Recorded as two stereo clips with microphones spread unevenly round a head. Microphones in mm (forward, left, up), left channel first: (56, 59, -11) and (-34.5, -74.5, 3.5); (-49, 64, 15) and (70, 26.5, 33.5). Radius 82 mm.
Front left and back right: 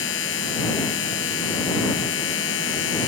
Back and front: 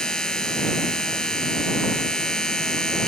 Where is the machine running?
75° left.